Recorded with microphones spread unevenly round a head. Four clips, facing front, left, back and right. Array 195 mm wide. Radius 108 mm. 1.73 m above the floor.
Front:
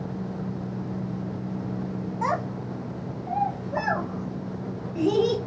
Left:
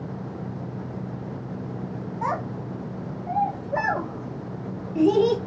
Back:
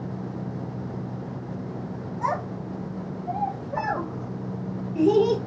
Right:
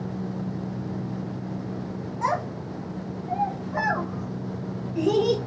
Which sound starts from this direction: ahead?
A child speaking, at 2.2 s.